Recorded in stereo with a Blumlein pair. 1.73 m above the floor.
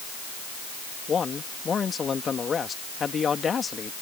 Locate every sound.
1.1 s a man speaking: 20° left